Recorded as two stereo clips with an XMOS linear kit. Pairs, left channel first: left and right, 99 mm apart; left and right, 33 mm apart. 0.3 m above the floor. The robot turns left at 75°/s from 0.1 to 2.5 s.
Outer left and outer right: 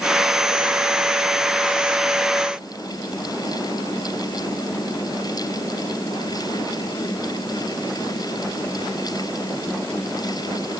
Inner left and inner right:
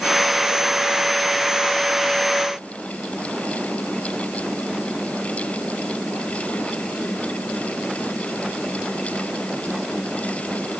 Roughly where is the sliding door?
I don't hear a sliding door.